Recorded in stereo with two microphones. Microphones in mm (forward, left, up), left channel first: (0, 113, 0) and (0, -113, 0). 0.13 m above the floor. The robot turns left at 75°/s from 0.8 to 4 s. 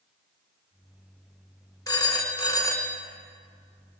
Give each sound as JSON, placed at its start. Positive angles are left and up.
{"t": 1.9, "sound": "a phone ringing", "side_deg": 15, "distance_m": 0.6}